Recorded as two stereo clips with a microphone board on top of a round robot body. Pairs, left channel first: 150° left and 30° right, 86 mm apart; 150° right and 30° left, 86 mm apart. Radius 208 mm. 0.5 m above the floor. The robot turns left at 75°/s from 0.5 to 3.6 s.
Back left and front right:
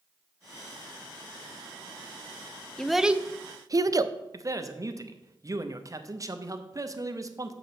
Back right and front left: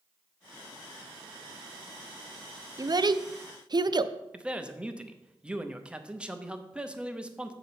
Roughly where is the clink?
I don't hear a clink.